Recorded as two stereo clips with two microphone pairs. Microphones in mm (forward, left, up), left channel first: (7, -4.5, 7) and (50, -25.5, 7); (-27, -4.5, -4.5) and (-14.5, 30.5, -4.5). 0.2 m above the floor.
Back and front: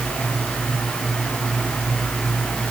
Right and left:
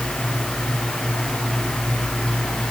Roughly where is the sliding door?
I don't hear a sliding door.